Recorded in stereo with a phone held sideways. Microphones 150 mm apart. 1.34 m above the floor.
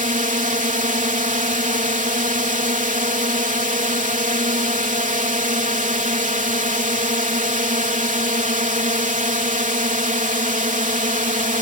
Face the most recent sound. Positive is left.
turn(degrees=-60)  # may be behind; listen again after turning